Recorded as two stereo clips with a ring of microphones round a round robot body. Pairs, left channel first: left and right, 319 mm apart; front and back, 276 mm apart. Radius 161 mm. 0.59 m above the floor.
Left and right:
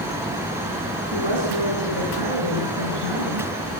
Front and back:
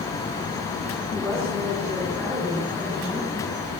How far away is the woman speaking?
About 5.5 m.